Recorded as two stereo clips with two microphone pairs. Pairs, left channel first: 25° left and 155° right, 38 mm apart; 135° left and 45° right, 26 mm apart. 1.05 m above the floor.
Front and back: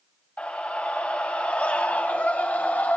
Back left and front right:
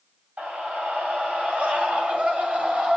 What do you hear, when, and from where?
0.4 s a scream: 25° right, 5.5 m; by 3.0 s 10° right, 5 m